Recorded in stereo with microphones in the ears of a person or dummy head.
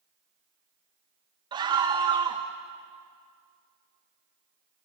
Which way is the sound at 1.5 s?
20° right (ahead or behind).